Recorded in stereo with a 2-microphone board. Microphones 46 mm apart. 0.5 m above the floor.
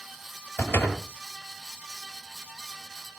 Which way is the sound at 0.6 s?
50° left (ahead or behind).